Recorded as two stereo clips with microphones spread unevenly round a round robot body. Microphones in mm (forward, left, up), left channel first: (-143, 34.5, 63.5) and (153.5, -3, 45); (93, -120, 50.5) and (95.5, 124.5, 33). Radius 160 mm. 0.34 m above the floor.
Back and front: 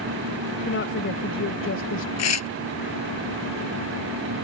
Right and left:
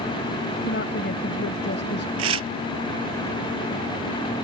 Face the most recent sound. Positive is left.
turn(degrees=135)